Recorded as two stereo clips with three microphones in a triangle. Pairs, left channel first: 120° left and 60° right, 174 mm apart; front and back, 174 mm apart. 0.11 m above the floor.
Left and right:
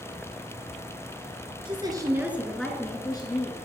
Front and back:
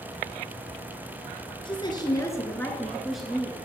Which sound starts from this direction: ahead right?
A woman speaking, at 1.6 s.